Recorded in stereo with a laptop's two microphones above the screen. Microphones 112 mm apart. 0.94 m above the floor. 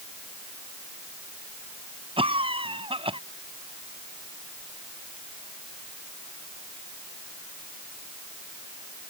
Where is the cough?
55° right (ahead or behind).